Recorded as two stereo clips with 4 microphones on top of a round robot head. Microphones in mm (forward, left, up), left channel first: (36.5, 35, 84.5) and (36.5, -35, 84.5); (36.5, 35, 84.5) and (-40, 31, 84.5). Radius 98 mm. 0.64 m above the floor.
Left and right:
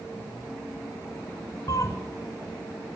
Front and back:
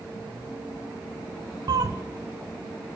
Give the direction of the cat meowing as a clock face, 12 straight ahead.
7 o'clock.